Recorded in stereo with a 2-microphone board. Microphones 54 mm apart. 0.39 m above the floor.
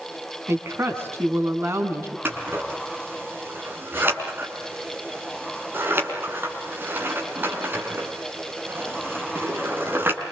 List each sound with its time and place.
0.5 s a woman speaking: 50° right (ahead or behind), 4 m
2.2 s scissors: 40° right (ahead or behind), 5 m